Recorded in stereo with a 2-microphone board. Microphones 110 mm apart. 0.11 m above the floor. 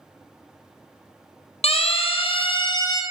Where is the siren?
65° left (ahead or behind), 3 m; by 3.0 s 35° left (ahead or behind), 2 m.